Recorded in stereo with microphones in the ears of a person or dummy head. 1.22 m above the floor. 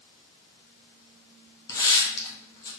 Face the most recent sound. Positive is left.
turn(degrees=15)  # may be behind; listen again after turning